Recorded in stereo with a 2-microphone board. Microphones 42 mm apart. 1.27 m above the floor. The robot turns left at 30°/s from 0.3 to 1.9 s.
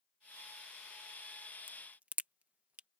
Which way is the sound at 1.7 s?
45° right (ahead or behind).